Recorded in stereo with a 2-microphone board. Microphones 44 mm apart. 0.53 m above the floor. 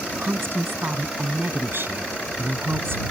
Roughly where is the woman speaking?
Right.